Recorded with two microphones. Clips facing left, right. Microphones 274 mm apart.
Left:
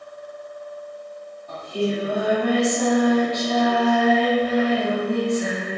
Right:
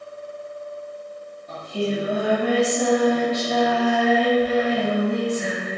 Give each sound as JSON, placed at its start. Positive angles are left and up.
{"t": 1.5, "sound": "singing", "side_deg": -20, "distance_m": 1.4}